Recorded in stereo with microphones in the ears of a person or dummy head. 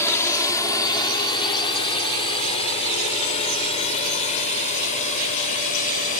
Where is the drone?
10° left (ahead or behind); by 6.2 s 40° left (ahead or behind).